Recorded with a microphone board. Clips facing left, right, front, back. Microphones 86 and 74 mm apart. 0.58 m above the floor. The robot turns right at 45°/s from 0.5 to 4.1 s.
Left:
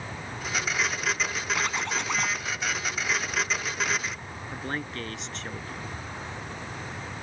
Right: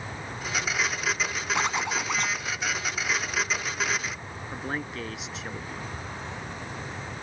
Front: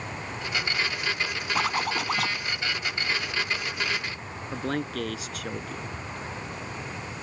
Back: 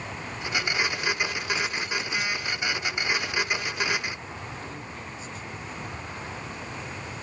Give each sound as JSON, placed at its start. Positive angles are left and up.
{"t": 1.6, "sound": "a zipper", "azimuth_deg": -25}
{"t": 4.5, "sound": "a man speaking", "azimuth_deg": -5}